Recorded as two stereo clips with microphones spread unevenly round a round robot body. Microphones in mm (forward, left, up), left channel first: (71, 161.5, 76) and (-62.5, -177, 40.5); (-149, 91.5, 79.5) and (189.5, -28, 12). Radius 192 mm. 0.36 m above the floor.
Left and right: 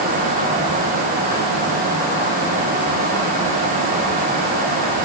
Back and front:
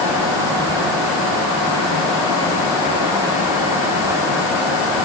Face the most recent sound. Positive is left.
No sound to turn to.